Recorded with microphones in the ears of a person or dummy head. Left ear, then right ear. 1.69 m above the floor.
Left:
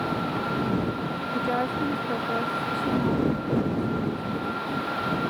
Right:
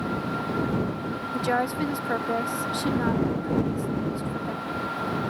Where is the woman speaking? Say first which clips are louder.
Right 2 dB; 75° right (ahead or behind).